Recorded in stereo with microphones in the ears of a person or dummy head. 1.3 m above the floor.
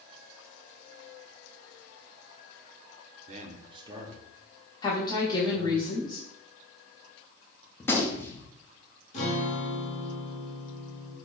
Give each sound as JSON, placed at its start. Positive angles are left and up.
{"t": 3.3, "sound": "a man speaking", "side_deg": -45, "distance_m": 0.5}
{"t": 4.8, "sound": "a woman speaking", "side_deg": 25, "distance_m": 1.0}
{"t": 7.8, "sound": "a gunshot", "side_deg": 10, "distance_m": 0.7}
{"t": 9.1, "sound": "a guitar", "side_deg": 40, "distance_m": 1.1}